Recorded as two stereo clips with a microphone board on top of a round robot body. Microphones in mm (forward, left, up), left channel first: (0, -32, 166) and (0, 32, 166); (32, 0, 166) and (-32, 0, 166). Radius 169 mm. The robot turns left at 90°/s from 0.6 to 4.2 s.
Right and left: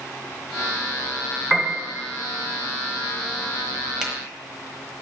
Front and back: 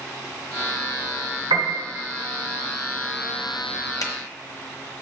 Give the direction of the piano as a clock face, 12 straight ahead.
6 o'clock.